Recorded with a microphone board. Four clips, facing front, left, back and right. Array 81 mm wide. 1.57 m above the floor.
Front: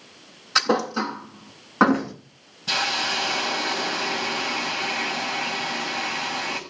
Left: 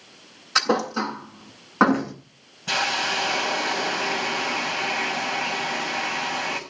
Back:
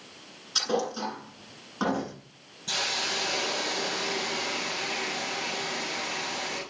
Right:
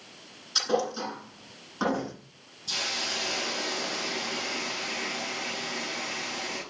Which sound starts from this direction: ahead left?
A thud, at 0.6 s.